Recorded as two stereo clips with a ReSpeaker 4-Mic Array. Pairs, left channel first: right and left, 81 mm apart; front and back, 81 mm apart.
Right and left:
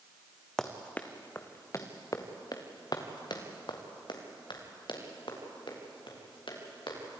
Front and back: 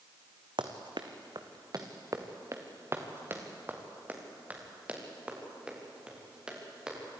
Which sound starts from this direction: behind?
Running footsteps, at 0.6 s.